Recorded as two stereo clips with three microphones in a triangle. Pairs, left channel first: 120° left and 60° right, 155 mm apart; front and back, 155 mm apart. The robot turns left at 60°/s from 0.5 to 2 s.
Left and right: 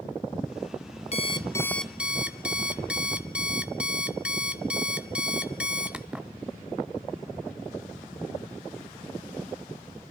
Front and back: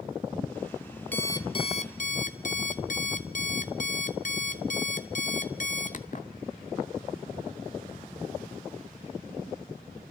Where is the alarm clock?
75° left, 0.7 m; by 6.3 s 25° left, 0.7 m.